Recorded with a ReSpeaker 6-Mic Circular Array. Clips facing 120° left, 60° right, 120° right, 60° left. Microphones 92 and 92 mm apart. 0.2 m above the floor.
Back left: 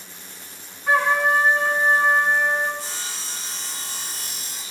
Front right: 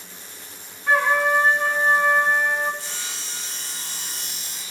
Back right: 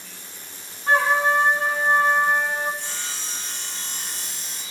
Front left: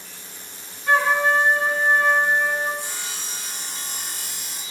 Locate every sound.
0.9 s a trumpet: 165° right, 1.3 m
2.8 s sawing: 135° left, 0.6 m